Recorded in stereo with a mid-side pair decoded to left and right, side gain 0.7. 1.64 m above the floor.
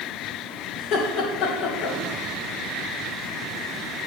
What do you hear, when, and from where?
0.8 s laughter: 55° left, 2.0 m